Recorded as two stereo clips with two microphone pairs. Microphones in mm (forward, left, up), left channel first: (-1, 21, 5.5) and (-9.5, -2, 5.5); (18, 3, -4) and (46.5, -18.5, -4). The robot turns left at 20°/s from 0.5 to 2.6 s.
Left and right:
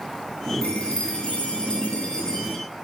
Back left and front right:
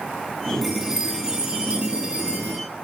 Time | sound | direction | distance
0.6 | a chime | 50° left | 9 m